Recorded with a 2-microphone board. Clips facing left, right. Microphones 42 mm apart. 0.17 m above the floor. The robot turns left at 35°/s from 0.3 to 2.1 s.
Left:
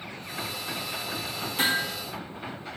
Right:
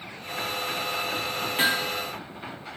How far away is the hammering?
About 2 m.